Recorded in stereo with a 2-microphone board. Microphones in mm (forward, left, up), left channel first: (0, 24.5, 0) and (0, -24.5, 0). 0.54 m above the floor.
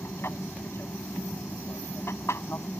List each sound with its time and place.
0.0 s an aircraft: 60° left (ahead or behind); by 2.8 s 65° left (ahead or behind)